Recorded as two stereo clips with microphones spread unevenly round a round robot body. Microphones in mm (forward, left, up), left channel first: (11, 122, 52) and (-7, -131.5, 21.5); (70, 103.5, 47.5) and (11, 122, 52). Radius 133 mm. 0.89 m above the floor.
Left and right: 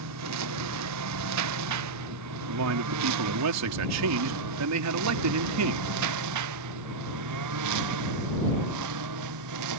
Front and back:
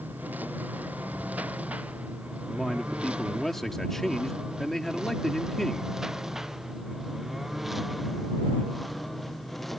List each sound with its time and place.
0.0 s a lawn mower: 120° right; by 9.8 s 105° right
2.5 s a man speaking: 105° right